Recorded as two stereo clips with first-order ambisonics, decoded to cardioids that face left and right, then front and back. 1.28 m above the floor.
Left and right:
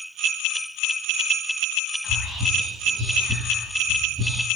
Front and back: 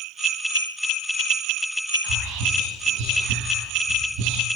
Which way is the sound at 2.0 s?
170° right.